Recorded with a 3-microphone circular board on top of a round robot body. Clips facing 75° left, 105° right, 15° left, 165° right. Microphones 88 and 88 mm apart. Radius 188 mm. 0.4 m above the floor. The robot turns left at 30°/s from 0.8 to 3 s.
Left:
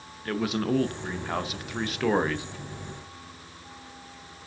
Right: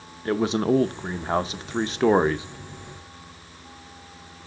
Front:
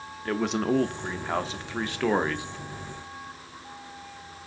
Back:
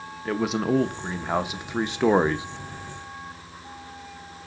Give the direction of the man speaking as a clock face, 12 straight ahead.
3 o'clock.